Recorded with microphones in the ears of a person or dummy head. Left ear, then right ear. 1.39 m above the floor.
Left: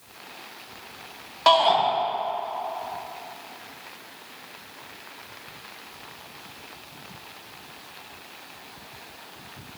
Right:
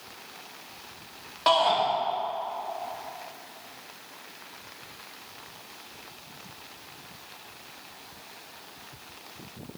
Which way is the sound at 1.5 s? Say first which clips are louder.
Left 4 dB; 10° left (ahead or behind).